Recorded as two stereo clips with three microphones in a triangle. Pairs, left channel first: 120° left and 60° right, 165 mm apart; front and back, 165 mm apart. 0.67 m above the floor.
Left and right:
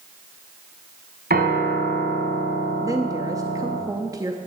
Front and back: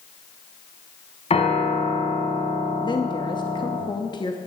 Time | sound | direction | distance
1.3 | a piano | 50° right | 1.6 m
2.8 | a woman speaking | 15° right | 0.7 m